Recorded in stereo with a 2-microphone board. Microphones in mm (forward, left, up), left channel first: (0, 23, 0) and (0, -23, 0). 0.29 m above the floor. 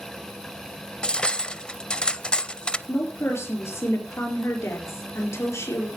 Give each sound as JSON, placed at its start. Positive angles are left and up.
{"t": 1.0, "sound": "cutlery clinking", "side_deg": 20, "distance_m": 0.5}
{"t": 2.9, "sound": "a woman speaking", "side_deg": 60, "distance_m": 4.5}